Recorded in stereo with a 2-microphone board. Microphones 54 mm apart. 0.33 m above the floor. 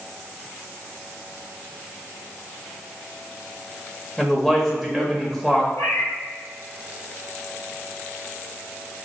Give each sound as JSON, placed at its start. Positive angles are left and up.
{"t": 4.2, "sound": "a man speaking", "side_deg": 5, "distance_m": 0.9}
{"t": 5.7, "sound": "a cat meowing", "side_deg": 80, "distance_m": 2.0}